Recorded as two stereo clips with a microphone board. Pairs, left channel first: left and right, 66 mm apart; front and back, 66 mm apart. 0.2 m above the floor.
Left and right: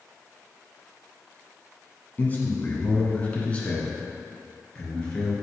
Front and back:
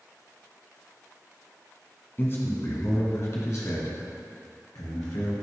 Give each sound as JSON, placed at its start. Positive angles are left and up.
{"t": 2.2, "sound": "a man speaking", "azimuth_deg": 40, "distance_m": 1.4}